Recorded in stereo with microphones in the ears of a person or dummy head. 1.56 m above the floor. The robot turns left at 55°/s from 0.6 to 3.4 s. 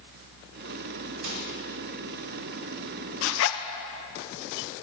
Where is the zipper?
75° left (ahead or behind), 0.7 m; by 3.6 s 85° left, 0.7 m.